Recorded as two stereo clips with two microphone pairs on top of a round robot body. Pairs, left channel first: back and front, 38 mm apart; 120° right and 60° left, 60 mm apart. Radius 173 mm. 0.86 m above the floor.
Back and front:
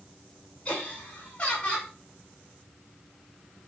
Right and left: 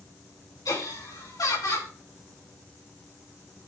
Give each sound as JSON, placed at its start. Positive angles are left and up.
{"t": 0.7, "sound": "laughter", "azimuth_deg": -120, "distance_m": 9.0}